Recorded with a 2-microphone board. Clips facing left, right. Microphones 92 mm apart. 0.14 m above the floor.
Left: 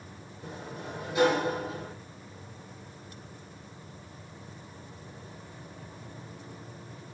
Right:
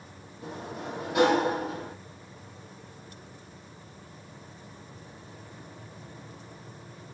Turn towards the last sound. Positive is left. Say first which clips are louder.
# right 3 dB
turn(degrees=-75)  # may be behind; listen again after turning